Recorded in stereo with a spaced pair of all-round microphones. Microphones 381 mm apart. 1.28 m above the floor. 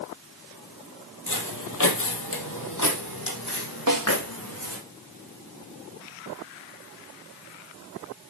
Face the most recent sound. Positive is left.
turn(degrees=-60)  # may be behind; listen again after turning